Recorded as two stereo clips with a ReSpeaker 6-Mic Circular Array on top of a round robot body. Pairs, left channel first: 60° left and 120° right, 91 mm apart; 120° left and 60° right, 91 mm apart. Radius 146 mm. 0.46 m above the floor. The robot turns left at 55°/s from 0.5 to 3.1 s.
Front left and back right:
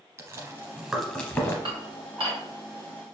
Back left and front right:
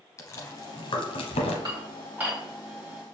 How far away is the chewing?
About 0.6 m.